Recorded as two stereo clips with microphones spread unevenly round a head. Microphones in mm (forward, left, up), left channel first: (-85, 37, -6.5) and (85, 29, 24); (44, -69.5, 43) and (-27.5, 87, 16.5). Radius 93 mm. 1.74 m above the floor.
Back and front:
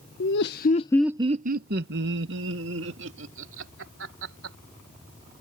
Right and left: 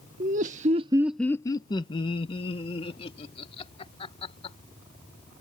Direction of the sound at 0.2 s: 165° left.